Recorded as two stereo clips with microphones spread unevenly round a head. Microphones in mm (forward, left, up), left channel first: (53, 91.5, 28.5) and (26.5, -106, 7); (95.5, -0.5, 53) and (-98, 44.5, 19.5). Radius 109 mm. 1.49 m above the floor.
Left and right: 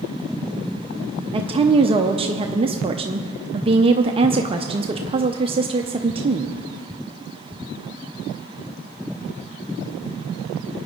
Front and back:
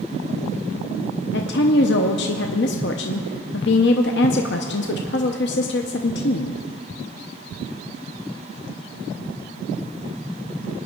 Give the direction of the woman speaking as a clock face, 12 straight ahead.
1 o'clock.